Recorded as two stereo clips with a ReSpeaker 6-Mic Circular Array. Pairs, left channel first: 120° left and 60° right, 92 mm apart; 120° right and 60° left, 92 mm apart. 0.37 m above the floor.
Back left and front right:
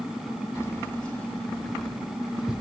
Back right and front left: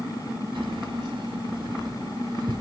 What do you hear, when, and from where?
0.6 s keys jangling: 60° left, 1.0 m; by 2.6 s 20° left, 1.6 m